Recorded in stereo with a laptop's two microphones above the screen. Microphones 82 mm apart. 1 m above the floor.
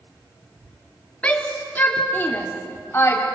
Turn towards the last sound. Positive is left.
turn(degrees=30)  # may be behind; listen again after turning